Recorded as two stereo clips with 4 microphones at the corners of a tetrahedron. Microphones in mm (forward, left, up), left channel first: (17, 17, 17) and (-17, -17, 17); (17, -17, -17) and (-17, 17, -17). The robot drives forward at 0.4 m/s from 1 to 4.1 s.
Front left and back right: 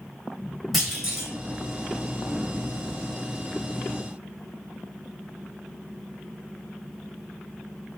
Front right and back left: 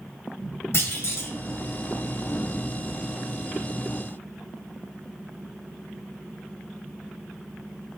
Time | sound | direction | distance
0.7 | a clunk | 50° right | 3 m